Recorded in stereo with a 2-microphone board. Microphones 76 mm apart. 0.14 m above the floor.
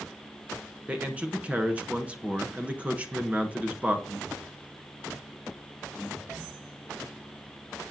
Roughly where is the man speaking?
Centre.